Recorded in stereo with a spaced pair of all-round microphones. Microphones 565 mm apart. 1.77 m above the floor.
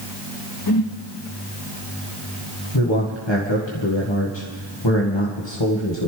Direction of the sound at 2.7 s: 50° left (ahead or behind).